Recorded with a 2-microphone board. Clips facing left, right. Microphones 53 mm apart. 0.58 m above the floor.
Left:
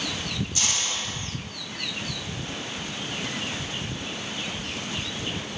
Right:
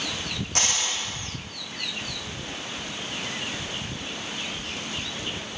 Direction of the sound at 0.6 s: 65° right (ahead or behind).